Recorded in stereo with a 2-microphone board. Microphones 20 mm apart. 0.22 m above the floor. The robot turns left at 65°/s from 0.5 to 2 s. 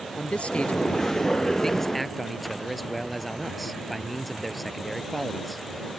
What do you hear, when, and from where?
0.2 s a man speaking: 105° left; by 5.6 s 5° left